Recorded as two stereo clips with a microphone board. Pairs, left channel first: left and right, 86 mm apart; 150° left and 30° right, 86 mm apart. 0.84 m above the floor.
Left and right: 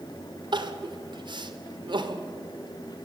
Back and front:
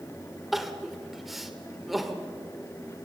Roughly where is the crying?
Behind right.